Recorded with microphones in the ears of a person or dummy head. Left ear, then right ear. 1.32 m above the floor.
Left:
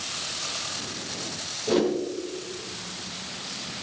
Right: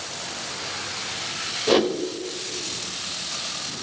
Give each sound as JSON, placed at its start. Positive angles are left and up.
{"t": 1.7, "sound": "a whoosh", "side_deg": -35, "distance_m": 1.3}